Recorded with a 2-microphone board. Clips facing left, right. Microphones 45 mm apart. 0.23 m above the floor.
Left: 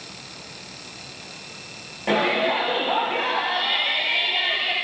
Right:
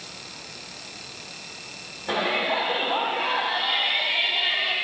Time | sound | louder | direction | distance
2.1 | a shout | left 4 dB | 55° left (ahead or behind) | 6 m